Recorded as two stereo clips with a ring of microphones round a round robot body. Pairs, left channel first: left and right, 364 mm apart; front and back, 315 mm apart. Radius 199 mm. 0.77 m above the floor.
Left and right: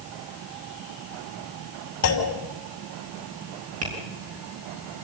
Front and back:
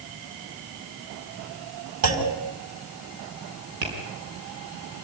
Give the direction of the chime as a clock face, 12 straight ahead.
No chime in this recording.